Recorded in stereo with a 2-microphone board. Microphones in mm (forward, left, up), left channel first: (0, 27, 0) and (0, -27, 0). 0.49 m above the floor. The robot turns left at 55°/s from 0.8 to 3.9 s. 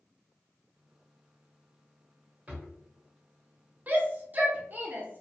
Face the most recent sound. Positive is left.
turn(degrees=-30)  # may be behind; listen again after turning